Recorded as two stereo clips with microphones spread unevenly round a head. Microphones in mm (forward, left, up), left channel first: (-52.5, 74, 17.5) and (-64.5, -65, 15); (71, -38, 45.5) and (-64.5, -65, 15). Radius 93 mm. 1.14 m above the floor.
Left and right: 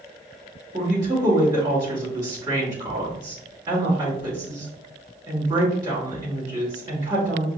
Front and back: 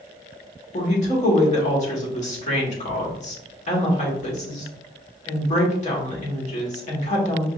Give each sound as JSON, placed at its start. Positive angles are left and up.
{"t": 0.7, "sound": "a woman speaking", "azimuth_deg": -25, "distance_m": 2.0}